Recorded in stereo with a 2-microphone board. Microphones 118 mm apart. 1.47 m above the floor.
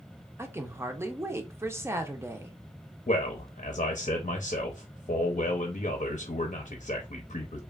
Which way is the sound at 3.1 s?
70° left (ahead or behind).